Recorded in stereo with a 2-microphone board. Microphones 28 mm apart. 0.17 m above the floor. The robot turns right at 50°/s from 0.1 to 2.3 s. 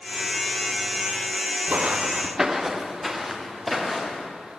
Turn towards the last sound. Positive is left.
turn(degrees=0)  # may be behind; listen again after turning